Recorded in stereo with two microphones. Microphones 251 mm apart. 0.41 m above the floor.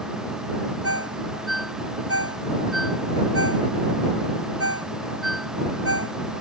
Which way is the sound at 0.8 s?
65° right (ahead or behind).